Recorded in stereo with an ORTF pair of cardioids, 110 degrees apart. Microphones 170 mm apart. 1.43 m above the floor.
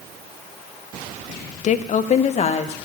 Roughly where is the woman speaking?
Ahead left.